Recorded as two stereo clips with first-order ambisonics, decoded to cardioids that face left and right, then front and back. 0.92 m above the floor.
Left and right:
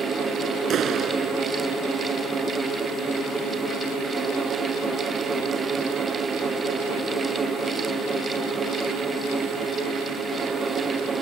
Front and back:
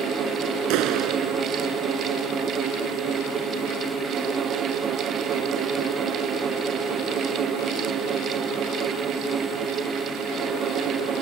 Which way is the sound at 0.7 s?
150° right.